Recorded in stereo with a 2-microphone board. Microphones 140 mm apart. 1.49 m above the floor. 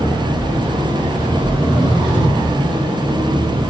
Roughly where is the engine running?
Centre.